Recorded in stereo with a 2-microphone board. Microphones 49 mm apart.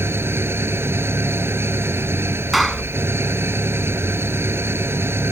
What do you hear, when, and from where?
0.0 s an engine running: 55° right (ahead or behind)
2.5 s a clap: 5° right (ahead or behind)